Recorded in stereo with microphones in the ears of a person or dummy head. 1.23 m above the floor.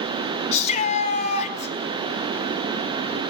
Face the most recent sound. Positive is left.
turn(degrees=35)  # may be behind; listen again after turning